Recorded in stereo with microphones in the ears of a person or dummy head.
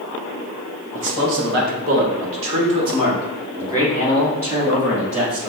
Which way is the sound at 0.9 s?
60° right (ahead or behind).